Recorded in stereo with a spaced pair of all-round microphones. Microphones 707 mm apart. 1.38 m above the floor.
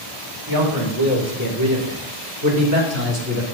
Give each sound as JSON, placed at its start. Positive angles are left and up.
{"t": 0.5, "sound": "a man speaking", "side_deg": -30, "distance_m": 4.5}